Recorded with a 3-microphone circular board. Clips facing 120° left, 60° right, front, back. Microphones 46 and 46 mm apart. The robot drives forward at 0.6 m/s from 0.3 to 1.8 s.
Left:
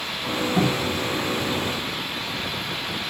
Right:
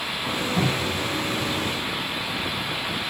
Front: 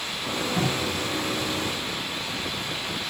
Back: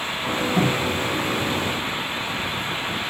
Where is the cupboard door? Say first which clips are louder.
Left 2 dB, back 5 dB; 105° left, 0.7 m; by 1.0 s 130° left, 0.8 m.